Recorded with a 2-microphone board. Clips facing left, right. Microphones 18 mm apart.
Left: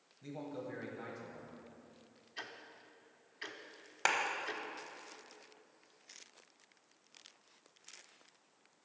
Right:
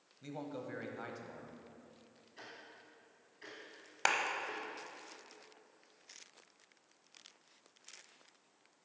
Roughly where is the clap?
Centre.